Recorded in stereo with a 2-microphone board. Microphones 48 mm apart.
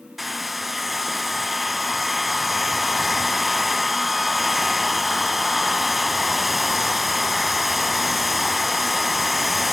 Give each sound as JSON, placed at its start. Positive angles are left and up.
{"t": 0.2, "sound": "a hair dryer", "side_deg": -5, "distance_m": 0.6}